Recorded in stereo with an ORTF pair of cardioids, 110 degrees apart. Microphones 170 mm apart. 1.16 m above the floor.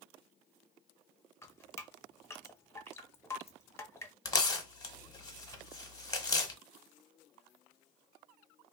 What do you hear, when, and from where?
1.4 s dripping: 15° left, 0.7 m
4.2 s tearing paper: 20° left, 0.7 m